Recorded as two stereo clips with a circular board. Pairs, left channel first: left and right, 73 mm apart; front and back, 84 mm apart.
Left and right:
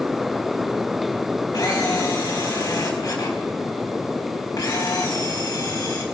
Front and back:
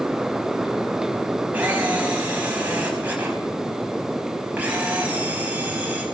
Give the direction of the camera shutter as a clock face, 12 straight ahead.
8 o'clock.